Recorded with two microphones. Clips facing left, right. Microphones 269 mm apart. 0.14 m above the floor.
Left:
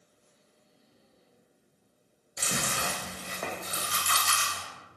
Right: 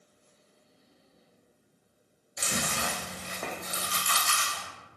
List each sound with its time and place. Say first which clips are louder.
2.4 s chewing: right 1 dB; 40° left (ahead or behind), 0.8 m